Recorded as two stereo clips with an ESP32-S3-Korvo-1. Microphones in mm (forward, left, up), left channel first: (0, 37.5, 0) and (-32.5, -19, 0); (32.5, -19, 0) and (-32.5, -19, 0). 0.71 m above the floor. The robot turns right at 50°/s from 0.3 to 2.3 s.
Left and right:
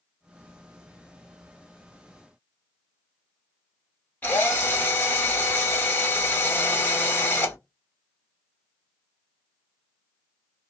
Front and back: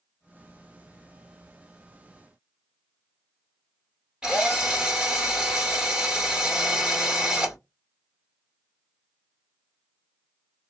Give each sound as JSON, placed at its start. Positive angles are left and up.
{"t": 4.2, "sound": "a drill", "azimuth_deg": 110, "distance_m": 1.2}